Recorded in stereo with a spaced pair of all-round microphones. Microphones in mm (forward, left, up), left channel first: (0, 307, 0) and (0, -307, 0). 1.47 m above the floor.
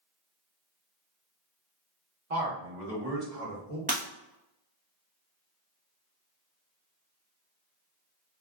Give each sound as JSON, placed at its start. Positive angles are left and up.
{"t": 2.3, "sound": "a man speaking", "side_deg": -65, "distance_m": 1.5}
{"t": 3.9, "sound": "breaking glass", "side_deg": -15, "distance_m": 0.8}